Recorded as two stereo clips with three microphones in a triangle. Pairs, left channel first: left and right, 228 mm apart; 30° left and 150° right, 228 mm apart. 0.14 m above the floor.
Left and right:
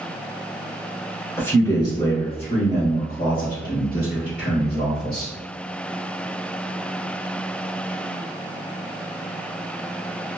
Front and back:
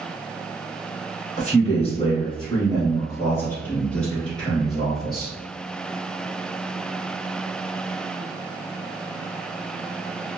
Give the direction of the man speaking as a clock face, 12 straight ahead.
11 o'clock.